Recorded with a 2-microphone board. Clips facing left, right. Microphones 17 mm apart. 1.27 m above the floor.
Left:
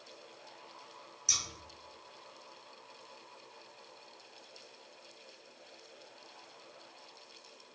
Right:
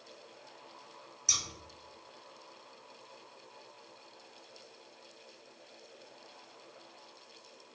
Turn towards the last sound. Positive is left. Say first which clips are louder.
# right 1 dB
turn(degrees=-5)  # may be behind; listen again after turning